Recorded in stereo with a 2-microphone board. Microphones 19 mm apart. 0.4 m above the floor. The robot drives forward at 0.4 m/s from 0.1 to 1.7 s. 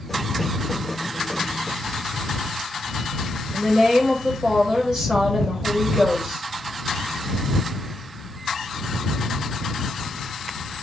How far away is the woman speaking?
About 1.2 m.